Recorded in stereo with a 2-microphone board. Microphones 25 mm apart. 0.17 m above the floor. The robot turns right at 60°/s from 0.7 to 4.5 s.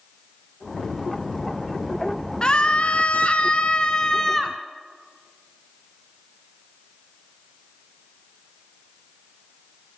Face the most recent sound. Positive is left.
turn(degrees=165)